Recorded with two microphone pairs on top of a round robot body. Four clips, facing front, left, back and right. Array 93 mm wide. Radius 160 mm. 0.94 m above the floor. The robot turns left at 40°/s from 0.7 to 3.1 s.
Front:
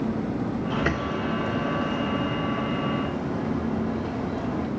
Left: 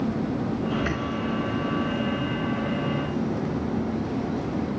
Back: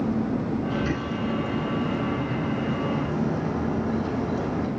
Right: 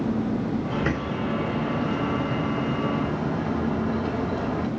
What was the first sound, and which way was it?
A bird, 25° right.